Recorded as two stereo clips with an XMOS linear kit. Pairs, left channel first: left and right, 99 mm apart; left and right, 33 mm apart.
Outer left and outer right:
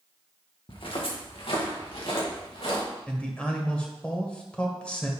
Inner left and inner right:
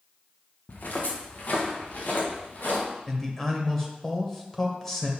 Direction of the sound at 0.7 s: 60° left (ahead or behind).